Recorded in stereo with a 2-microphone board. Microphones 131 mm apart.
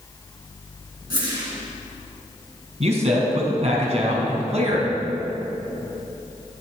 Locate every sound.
1.1 s a whoosh: 35° right (ahead or behind), 3 m
2.8 s a man speaking: 55° right (ahead or behind), 2.5 m